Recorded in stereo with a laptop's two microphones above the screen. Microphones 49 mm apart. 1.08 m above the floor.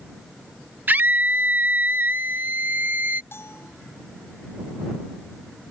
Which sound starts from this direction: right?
A scream, at 0.9 s.